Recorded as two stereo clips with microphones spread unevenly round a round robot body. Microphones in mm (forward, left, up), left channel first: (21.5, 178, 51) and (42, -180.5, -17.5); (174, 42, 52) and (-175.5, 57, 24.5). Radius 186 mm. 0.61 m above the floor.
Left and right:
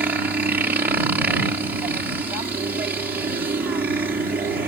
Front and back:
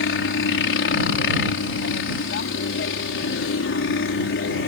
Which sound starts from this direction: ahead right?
A helicopter, at 0.0 s.